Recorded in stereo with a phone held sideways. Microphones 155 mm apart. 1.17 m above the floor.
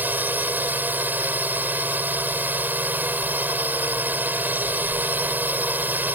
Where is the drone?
10° right (ahead or behind).